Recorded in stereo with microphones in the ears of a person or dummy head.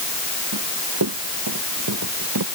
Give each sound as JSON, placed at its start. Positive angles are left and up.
{"t": 0.5, "sound": "running footsteps", "side_deg": -80}